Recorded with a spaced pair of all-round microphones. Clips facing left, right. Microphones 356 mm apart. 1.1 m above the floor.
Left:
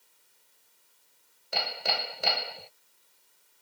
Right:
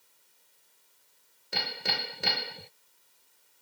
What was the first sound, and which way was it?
Hammering, 25° right (ahead or behind).